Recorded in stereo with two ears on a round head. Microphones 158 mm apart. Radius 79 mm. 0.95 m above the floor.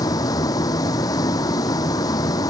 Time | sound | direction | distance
0.0 | a vehicle | 20° left (ahead or behind) | ?